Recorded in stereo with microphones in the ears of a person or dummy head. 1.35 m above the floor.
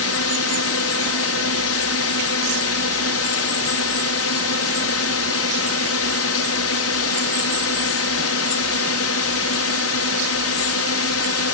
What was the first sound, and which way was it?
A drone, 60° left (ahead or behind).